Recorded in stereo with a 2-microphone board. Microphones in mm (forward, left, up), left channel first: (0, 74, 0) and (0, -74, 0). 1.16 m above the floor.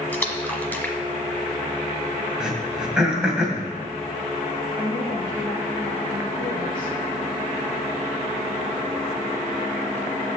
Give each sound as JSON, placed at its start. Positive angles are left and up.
{"t": 0.1, "sound": "a splash", "side_deg": 10, "distance_m": 1.2}
{"t": 2.4, "sound": "throat clearing", "side_deg": -5, "distance_m": 2.0}
{"t": 4.8, "sound": "a woman speaking", "side_deg": 35, "distance_m": 2.0}